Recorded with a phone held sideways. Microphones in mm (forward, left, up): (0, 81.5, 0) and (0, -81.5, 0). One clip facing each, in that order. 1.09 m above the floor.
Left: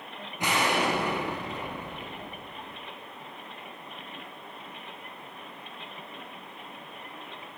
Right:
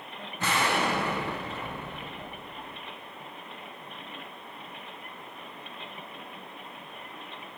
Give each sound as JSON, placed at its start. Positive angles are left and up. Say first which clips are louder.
{"t": 0.4, "sound": "an explosion", "louder": "left 1 dB", "side_deg": 15, "distance_m": 0.9}